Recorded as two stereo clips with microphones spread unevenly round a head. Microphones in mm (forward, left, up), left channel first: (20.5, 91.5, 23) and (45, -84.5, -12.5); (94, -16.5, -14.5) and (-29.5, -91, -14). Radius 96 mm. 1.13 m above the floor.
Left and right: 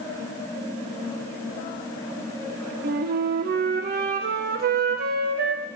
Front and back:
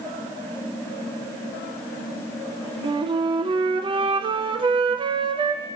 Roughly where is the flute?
Right.